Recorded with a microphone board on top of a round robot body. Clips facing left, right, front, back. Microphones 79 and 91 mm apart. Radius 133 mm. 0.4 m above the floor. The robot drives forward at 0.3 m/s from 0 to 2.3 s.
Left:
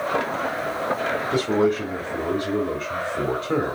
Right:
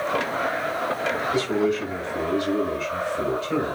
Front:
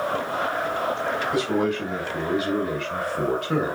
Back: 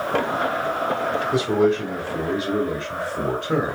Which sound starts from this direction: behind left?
A man speaking, at 1.3 s.